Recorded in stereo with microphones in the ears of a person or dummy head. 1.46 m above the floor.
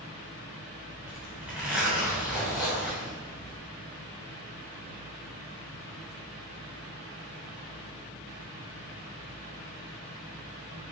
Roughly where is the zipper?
Centre.